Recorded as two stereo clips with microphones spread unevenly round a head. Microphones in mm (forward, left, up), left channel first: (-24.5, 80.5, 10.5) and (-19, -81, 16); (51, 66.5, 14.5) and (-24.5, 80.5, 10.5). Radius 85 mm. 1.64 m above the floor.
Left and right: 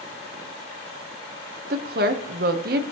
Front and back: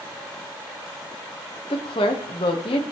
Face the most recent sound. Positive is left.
turn(degrees=-50)